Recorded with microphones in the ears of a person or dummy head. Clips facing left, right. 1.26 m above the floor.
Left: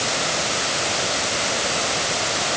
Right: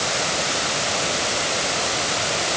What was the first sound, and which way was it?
Only background noise.